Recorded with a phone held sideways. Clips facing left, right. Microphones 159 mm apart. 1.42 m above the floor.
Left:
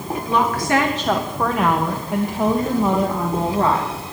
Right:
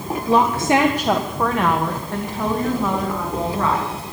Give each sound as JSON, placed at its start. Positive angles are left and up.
{"t": 0.3, "sound": "a woman speaking", "side_deg": -35, "distance_m": 1.2}